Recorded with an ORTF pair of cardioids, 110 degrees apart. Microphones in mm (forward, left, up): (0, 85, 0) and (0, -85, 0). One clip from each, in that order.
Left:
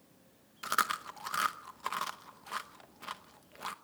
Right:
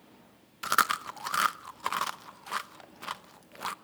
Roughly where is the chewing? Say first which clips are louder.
Right 5 dB; ahead right.